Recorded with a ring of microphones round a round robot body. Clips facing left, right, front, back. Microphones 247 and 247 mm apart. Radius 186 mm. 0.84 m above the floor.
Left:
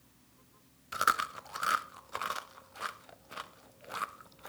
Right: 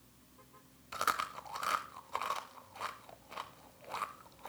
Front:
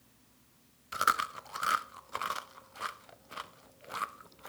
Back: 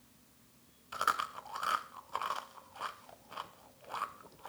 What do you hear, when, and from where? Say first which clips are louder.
0.9 s chewing: left 3 dB, front 3 dB; 35° left, 0.7 m